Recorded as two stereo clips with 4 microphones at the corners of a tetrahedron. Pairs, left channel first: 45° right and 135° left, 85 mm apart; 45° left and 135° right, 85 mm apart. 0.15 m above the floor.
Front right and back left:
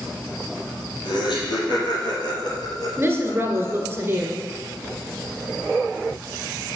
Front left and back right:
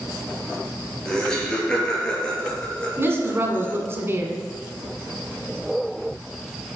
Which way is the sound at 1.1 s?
35° right.